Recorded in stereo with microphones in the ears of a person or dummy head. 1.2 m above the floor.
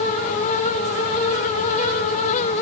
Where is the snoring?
No snoring in this recording.